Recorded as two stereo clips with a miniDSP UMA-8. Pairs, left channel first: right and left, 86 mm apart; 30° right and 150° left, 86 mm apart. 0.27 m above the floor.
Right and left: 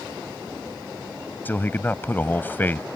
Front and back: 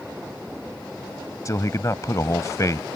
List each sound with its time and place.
1.4 s a man speaking: 35° right